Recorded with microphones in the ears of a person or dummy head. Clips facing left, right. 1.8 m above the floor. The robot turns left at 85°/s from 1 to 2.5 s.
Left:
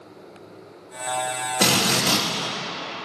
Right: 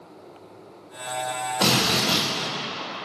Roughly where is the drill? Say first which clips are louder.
Left 1 dB; behind left.